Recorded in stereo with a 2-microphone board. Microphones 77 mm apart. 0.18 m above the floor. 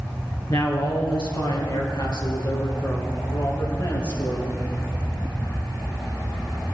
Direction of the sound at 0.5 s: 60° left (ahead or behind).